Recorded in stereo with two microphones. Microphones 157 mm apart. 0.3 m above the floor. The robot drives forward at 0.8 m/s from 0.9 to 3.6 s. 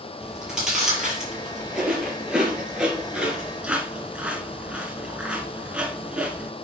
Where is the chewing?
5° right (ahead or behind), 4.5 m.